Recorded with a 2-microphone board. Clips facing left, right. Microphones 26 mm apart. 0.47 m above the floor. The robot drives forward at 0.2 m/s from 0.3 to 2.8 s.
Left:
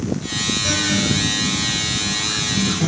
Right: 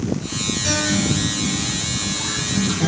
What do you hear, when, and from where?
0.6 s a guitar: 10° left (ahead or behind), 2.5 m; by 2.9 s 5° left (ahead or behind), 3 m